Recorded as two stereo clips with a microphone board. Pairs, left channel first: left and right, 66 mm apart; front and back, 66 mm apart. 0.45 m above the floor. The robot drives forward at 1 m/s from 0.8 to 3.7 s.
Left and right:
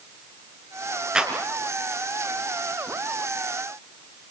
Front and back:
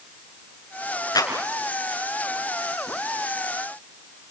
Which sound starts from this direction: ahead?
A clap, at 1.1 s.